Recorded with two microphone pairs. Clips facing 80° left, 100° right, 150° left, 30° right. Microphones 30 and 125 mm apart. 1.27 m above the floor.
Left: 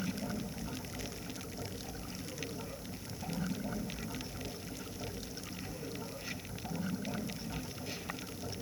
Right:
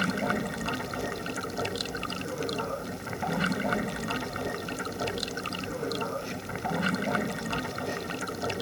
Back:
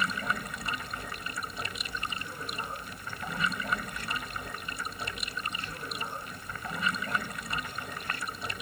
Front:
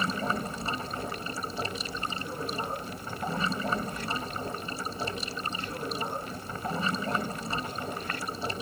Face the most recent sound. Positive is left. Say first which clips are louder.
# right 11 dB, front 3 dB
turn(degrees=-90)